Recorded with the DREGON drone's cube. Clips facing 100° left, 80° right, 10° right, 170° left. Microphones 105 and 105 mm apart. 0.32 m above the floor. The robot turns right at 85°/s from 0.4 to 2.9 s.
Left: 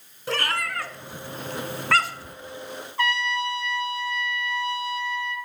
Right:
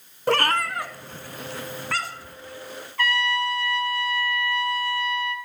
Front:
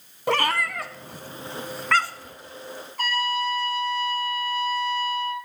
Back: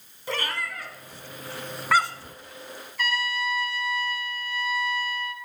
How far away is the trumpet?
About 1.2 m.